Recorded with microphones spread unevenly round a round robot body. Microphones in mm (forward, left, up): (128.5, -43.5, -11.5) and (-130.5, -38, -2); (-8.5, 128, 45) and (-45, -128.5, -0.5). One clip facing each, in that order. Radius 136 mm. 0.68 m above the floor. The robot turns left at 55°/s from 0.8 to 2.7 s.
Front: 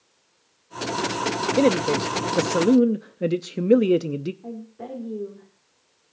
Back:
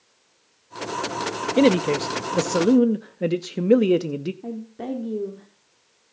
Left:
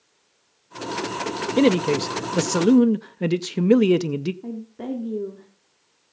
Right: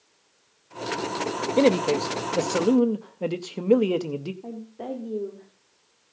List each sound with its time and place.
1.6 s a man speaking: 140° left, 0.6 m; by 4.3 s 80° left, 0.6 m
4.4 s a woman speaking: 140° left, 2 m